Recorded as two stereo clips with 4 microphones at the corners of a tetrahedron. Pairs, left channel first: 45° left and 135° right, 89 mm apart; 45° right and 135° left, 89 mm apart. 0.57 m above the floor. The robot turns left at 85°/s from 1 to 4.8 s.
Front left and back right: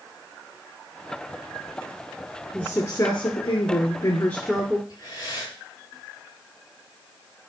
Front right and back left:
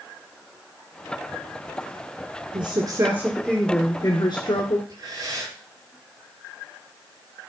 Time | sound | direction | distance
2.5 | a woman speaking | 125° left | 1.8 m
4.9 | breathing | 95° left | 6 m